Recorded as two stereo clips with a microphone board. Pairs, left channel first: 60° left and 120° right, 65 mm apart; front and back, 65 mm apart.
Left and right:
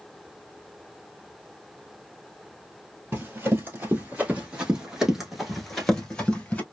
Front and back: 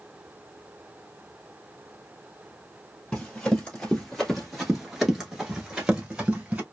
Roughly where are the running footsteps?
Right.